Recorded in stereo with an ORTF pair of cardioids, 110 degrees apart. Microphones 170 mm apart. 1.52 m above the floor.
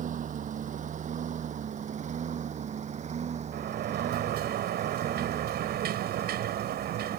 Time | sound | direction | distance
0.0 | a lawn mower | 45° right | ?
3.5 | a sliding door | 65° right | ?